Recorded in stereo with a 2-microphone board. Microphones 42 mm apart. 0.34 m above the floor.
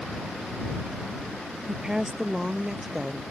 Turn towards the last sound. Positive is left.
turn(degrees=-5)  # may be behind; listen again after turning